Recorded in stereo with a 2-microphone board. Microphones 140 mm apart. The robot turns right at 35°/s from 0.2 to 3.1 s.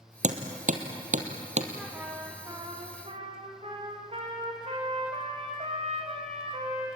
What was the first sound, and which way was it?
Hammering, 60° right (ahead or behind).